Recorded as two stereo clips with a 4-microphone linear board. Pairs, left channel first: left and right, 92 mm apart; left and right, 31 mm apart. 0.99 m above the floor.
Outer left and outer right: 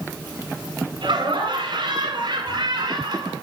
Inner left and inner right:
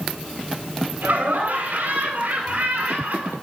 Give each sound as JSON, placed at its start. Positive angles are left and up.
{"t": 1.0, "sound": "laughter", "side_deg": -60, "distance_m": 8.5}